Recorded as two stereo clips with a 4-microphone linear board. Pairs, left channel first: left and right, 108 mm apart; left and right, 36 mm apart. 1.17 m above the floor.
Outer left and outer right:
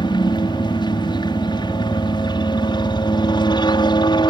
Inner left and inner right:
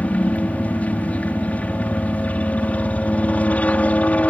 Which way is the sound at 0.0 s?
45° left (ahead or behind).